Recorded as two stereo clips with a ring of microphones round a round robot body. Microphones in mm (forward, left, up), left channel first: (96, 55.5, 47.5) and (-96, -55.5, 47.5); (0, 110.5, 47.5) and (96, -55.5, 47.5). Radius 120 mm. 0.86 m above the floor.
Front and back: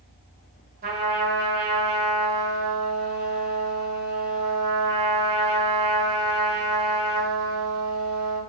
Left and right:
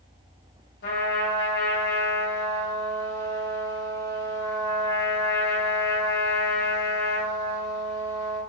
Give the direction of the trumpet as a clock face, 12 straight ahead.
7 o'clock.